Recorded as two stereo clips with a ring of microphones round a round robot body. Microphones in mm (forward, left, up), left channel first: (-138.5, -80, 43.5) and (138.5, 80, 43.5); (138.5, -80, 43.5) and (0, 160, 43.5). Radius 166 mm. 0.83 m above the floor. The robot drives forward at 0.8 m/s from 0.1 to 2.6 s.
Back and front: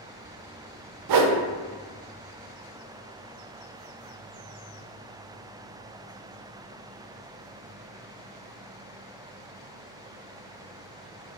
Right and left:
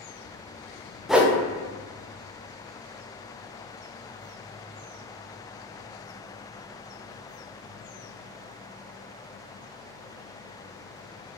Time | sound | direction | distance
1.1 | a whoosh | 30° left | 0.6 m